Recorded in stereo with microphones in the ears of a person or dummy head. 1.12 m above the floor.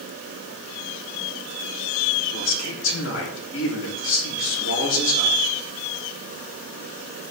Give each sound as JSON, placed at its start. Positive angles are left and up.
{"t": 2.3, "sound": "a man speaking", "side_deg": 80, "distance_m": 3.0}